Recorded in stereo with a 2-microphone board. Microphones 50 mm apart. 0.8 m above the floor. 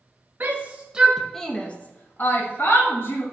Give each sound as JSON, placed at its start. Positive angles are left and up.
{"t": 0.4, "sound": "a shout", "side_deg": -40, "distance_m": 1.1}